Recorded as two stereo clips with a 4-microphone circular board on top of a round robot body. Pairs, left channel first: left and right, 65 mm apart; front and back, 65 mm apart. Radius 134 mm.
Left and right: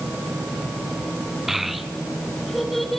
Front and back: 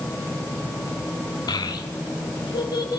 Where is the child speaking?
5° right, 2.5 m; by 3.0 s straight ahead, 4.5 m.